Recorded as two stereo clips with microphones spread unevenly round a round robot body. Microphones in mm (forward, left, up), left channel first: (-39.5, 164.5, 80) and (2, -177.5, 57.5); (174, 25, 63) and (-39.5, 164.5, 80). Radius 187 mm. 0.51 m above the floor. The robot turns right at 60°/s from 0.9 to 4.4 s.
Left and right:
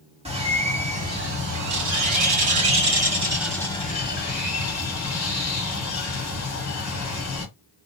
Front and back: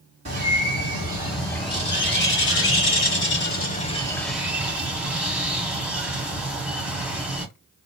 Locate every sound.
0.2 s a bird: 150° right, 1.8 m; by 7.5 s 60° left, 1.8 m